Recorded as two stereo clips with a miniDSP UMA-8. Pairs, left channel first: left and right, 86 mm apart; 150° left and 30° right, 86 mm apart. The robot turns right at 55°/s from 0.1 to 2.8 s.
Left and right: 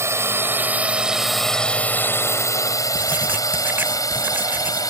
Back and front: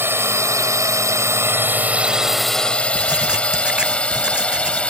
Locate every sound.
0.0 s a drone: 65° right; by 4.9 s 80° left
3.0 s writing: 85° right